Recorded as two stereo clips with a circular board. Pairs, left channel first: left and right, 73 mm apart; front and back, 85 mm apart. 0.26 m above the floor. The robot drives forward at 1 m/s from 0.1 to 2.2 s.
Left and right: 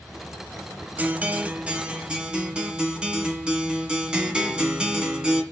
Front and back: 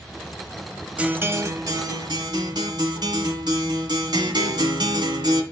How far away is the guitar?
About 0.9 m.